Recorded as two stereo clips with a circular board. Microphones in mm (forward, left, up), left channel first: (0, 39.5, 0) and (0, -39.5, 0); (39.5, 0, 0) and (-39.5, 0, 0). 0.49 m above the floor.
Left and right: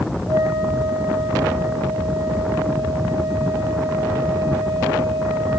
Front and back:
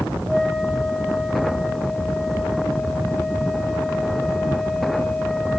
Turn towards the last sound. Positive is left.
turn(degrees=-90)